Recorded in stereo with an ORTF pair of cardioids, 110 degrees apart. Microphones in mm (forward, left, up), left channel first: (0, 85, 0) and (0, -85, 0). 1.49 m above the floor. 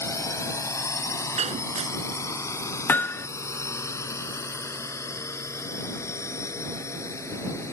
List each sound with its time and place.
0.0 s a drone: 15° left
1.4 s breaking glass: 40° right
2.9 s hammering: 15° left